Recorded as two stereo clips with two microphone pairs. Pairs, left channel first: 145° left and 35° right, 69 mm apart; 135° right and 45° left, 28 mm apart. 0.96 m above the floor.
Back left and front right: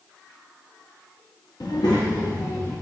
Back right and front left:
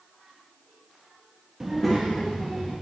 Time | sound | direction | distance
1.6 | a child speaking | 125° left | 0.6 m